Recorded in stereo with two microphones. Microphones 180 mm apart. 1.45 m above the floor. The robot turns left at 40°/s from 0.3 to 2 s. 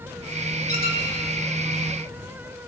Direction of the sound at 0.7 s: 65° left (ahead or behind).